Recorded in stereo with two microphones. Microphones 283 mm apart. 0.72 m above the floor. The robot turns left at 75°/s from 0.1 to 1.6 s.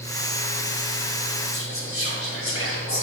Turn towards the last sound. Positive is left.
turn(degrees=50)  # may be behind; listen again after turning